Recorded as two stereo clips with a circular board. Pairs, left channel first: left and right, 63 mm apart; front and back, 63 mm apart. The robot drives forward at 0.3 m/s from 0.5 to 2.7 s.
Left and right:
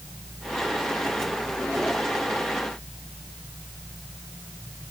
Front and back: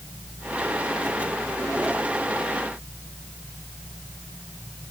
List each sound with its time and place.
Only background noise.